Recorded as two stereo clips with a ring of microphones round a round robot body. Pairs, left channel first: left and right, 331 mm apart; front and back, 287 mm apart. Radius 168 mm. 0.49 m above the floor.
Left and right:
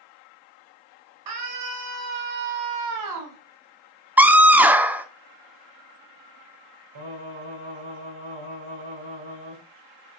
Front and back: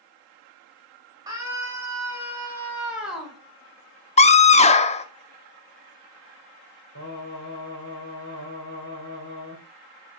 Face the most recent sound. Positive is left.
turn(degrees=-60)